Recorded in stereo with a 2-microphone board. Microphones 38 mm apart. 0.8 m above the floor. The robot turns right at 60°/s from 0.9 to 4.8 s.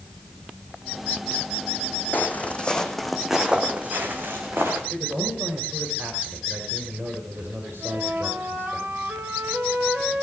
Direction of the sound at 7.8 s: 55° right (ahead or behind).